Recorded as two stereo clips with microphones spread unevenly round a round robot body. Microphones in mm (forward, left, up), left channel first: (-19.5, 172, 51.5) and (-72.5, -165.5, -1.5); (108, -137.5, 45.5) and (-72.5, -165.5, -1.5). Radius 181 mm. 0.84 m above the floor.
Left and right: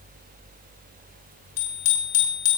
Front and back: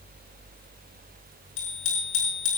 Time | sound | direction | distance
1.6 | a bicycle bell | 30° left | 7.5 m